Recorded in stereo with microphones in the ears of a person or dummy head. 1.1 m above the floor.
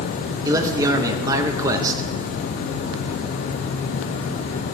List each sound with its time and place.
0.5 s a man speaking: 10° right (ahead or behind), 1.1 m